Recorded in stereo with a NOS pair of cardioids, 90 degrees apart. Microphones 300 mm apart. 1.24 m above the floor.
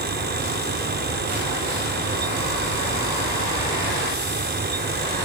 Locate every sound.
0.0 s a fan: 35° right